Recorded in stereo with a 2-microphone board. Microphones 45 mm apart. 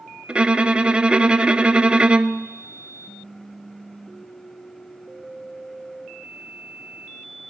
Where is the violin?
25° right (ahead or behind), 0.7 m.